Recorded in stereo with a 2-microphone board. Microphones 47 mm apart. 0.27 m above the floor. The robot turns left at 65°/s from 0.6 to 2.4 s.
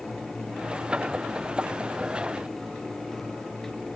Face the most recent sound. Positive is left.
No sound to turn to.